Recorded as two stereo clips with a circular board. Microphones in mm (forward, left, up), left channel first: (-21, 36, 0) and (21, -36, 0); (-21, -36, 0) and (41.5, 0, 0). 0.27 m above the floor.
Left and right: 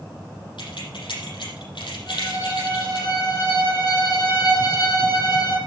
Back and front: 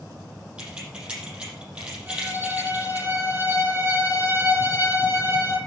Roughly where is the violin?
Left.